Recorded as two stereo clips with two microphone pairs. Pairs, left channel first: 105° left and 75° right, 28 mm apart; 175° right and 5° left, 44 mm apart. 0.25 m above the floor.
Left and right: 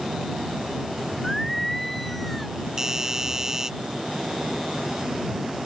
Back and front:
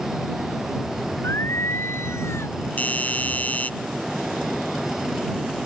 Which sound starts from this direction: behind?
Singing, at 1.2 s.